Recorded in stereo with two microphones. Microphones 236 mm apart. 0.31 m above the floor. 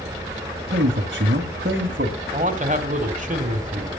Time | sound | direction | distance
0.7 | a man speaking | 45° right (ahead or behind) | 1.5 m
2.3 | a man speaking | 35° right (ahead or behind) | 1.6 m